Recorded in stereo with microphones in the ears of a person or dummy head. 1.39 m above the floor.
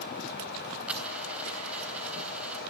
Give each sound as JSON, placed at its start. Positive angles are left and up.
{"t": 0.9, "sound": "a dropped coin", "side_deg": -5, "distance_m": 3.5}